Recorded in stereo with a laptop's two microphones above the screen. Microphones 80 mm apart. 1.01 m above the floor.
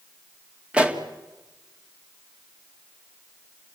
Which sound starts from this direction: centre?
A pop, at 0.7 s.